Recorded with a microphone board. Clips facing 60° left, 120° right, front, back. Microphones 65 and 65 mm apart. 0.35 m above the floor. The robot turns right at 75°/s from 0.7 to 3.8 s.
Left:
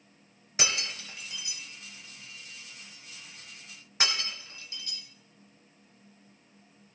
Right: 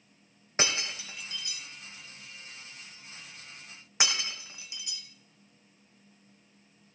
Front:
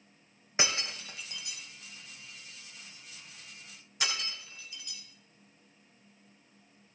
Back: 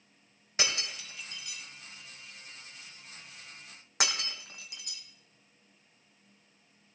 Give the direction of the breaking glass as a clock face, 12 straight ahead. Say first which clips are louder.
Right 2 dB, front 2 dB; 2 o'clock.